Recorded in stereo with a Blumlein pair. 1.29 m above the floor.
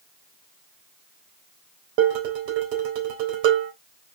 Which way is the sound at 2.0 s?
45° right.